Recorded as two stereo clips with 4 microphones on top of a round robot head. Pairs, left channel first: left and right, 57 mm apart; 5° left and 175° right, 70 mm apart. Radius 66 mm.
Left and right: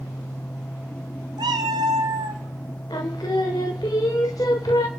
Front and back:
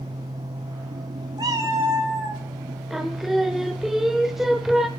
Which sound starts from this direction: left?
Singing, at 2.9 s.